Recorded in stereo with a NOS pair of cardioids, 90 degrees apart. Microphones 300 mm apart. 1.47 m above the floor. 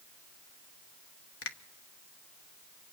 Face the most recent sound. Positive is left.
turn(degrees=50)